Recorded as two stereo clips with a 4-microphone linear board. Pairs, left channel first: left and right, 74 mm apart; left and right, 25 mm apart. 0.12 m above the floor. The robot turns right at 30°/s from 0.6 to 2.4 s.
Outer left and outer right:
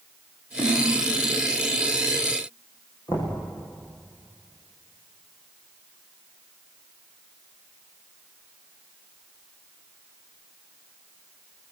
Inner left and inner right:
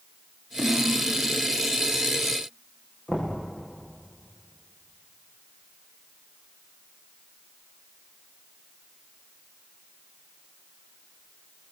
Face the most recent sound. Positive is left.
turn(degrees=60)  # may be behind; listen again after turning